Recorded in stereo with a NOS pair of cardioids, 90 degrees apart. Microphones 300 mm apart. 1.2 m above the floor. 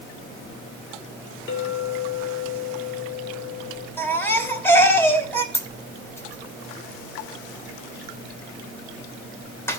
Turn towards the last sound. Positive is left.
turn(degrees=10)